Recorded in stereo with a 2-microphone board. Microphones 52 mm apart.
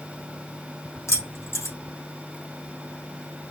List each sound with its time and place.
1.1 s keys jangling: 70° left (ahead or behind), 3.5 m